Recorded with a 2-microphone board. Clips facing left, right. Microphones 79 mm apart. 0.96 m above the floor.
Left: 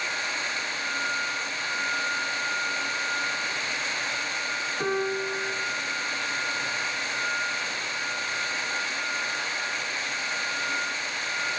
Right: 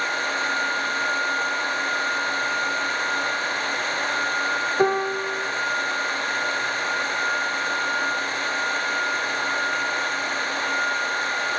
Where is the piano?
60° right (ahead or behind), 1.2 m.